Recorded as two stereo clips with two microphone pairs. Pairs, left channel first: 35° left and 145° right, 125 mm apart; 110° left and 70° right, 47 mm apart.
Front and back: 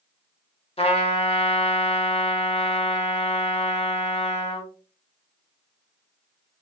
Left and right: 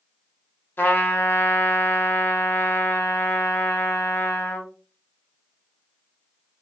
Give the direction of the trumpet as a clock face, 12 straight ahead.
10 o'clock.